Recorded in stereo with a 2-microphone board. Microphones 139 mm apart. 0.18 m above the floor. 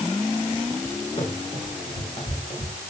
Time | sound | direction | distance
1.2 | running footsteps | 55° left (ahead or behind) | 7 m